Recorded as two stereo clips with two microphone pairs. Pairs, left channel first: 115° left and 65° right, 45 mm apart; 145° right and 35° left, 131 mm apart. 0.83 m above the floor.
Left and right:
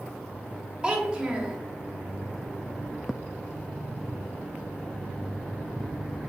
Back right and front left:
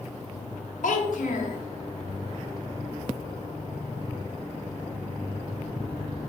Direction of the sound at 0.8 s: 135° right.